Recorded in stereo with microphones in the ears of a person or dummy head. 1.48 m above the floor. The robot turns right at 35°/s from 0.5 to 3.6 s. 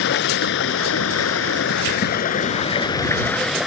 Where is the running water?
75° left; by 3.7 s 175° right.